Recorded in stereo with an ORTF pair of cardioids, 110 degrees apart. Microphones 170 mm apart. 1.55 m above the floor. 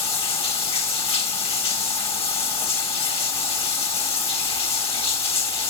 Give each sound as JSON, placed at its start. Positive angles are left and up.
{"t": 0.0, "sound": "running water", "azimuth_deg": 35, "distance_m": 1.9}